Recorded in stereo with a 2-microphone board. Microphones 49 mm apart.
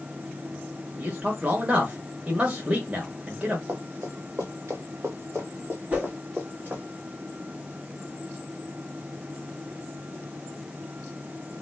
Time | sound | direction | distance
1.0 | a man speaking | 25° right (ahead or behind) | 0.9 m
3.7 | running footsteps | 75° right (ahead or behind) | 1.3 m
5.9 | a whoosh | 30° right (ahead or behind) | 1.2 m